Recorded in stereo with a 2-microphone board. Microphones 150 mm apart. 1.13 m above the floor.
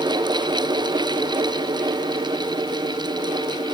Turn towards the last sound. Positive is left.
No sound to turn to.